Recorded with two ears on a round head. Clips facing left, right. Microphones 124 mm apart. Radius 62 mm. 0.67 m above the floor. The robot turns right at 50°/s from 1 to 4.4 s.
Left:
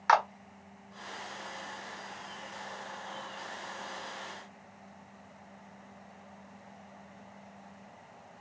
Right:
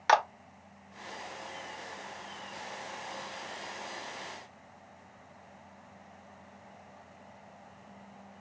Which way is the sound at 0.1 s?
30° right (ahead or behind).